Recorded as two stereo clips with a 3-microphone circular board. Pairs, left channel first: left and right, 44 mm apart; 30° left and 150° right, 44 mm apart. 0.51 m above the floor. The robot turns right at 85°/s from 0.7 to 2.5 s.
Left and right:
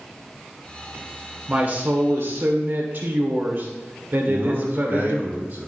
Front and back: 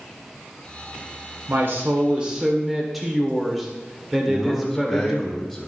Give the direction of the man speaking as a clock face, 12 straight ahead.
2 o'clock.